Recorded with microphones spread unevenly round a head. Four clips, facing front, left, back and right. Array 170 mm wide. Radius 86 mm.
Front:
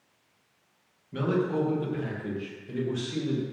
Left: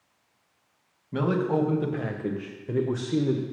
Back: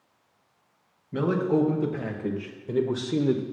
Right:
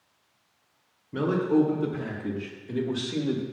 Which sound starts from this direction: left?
A man speaking, at 1.1 s.